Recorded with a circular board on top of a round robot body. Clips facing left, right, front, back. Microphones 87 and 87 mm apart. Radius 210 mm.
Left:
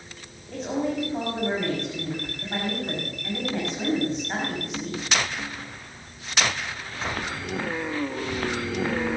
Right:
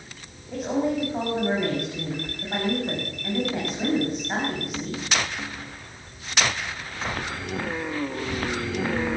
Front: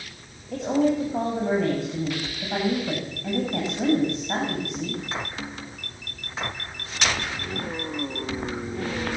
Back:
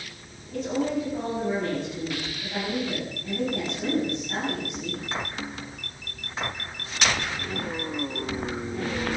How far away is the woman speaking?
About 7 m.